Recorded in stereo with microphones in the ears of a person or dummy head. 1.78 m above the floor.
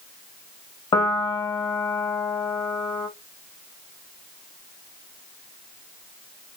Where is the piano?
20° left (ahead or behind), 0.6 m.